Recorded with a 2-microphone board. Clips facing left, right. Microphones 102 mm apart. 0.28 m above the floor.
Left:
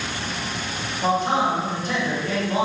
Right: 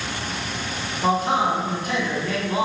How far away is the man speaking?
About 1.8 m.